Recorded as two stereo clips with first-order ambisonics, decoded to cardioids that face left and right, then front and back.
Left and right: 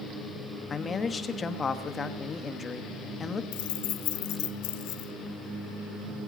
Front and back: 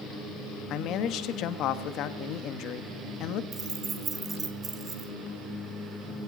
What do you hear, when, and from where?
0.7 s a man speaking: 25° left, 1.2 m
3.5 s keys jangling: 110° left, 1.8 m